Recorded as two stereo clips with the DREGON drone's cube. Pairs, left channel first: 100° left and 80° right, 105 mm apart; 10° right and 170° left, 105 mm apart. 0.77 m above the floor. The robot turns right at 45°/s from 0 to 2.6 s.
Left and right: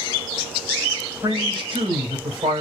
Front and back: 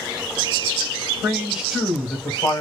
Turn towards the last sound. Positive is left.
turn(degrees=-65)